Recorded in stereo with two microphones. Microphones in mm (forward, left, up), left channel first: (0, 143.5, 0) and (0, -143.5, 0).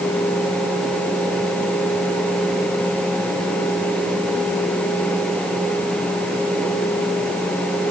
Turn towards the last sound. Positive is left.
No sound to turn to.